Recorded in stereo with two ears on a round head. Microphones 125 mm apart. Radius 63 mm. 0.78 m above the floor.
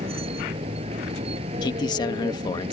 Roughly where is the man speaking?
Left.